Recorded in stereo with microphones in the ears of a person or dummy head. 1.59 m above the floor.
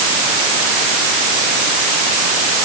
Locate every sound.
Only background noise.